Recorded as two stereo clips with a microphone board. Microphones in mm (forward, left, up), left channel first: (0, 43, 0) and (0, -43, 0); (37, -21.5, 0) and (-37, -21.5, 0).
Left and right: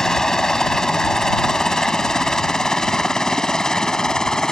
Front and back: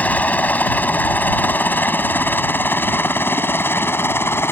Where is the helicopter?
15° left.